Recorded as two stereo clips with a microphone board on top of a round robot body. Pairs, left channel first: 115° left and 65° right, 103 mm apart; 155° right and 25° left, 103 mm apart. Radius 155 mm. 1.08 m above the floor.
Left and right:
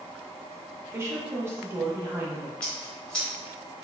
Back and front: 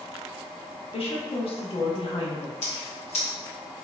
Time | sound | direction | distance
0.9 | a woman speaking | 130° right | 1.2 m
2.6 | scissors | 165° right | 1.2 m